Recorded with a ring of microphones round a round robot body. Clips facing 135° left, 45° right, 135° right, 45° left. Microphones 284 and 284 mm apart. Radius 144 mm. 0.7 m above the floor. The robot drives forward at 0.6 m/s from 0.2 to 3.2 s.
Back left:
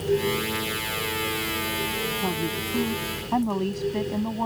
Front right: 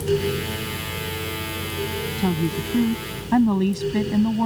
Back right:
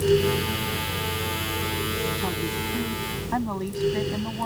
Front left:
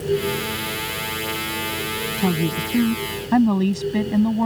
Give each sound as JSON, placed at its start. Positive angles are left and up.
{"t": 2.2, "sound": "a woman speaking", "azimuth_deg": 10}